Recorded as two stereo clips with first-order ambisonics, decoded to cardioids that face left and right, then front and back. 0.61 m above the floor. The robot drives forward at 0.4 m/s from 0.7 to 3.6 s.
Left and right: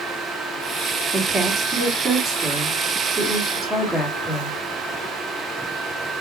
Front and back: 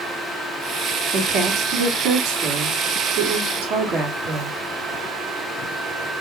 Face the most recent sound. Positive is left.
turn(degrees=-170)